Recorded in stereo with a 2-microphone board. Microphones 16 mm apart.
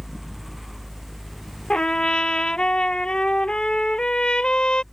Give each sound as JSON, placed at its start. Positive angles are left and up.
{"t": 1.7, "sound": "a trumpet", "side_deg": 70}